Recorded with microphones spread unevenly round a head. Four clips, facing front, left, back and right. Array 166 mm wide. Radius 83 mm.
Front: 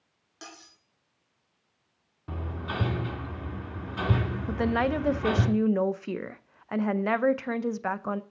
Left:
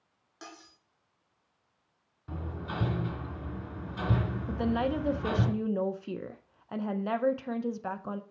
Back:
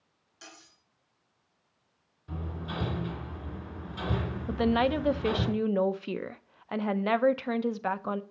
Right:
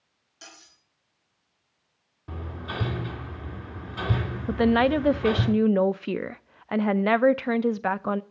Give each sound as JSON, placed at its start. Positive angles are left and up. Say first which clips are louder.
{"t": 0.4, "sound": "cutlery clinking", "louder": "left 3 dB, front 5 dB", "azimuth_deg": 35, "distance_m": 2.0}
{"t": 2.3, "sound": "hammering", "louder": "right 2 dB, front 3 dB", "azimuth_deg": -20, "distance_m": 2.5}
{"t": 4.5, "sound": "a woman speaking", "louder": "right 9 dB, back 1 dB", "azimuth_deg": -75, "distance_m": 0.6}